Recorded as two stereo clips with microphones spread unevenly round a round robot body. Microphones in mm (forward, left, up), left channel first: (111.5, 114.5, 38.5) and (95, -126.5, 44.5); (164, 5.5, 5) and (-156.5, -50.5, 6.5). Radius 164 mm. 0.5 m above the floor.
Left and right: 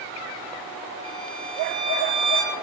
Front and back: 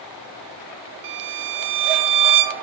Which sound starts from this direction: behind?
A violin, at 1.0 s.